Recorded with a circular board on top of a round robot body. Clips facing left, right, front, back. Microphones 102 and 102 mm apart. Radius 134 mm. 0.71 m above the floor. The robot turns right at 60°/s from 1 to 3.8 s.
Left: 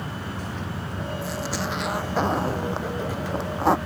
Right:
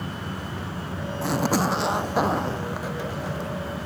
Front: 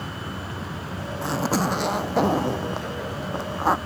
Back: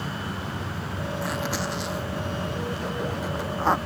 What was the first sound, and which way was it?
A zipper, 70° right.